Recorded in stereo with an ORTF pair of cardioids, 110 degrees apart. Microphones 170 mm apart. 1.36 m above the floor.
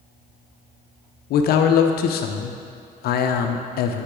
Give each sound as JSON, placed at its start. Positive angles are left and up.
{"t": 1.3, "sound": "a man speaking", "azimuth_deg": 65, "distance_m": 0.7}